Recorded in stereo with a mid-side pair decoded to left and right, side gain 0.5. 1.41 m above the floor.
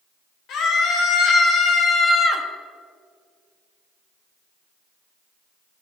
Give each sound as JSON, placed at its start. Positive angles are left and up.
{"t": 0.5, "sound": "a scream", "azimuth_deg": 70, "distance_m": 4.0}